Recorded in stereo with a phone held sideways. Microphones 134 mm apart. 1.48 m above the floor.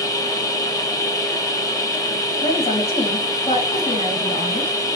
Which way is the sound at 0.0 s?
25° left (ahead or behind).